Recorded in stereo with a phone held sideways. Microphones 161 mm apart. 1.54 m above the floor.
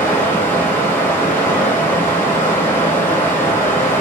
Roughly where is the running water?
Centre.